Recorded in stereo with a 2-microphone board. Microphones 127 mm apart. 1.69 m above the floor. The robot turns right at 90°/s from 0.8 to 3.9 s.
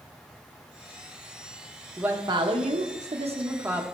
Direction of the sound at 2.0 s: 175° right.